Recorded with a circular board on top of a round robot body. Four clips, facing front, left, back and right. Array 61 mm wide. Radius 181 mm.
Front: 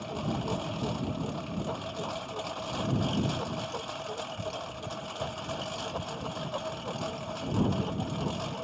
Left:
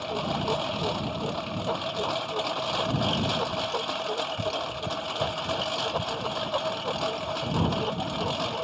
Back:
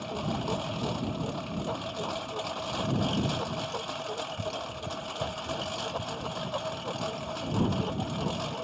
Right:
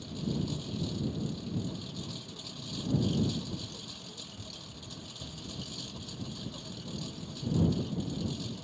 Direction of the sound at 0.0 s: 95° left.